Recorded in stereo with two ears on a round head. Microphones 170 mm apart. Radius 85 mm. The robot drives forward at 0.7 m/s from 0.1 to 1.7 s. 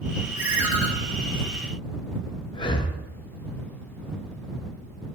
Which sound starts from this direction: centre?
A ringtone, at 0.4 s.